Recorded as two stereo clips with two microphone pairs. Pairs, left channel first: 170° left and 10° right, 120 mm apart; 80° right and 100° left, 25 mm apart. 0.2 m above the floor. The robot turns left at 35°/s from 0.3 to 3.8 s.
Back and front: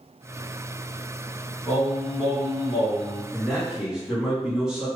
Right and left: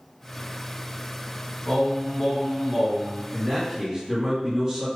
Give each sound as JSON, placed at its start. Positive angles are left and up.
{"t": 1.7, "sound": "singing", "azimuth_deg": -120, "distance_m": 1.6}
{"t": 3.3, "sound": "a man speaking", "azimuth_deg": 85, "distance_m": 1.8}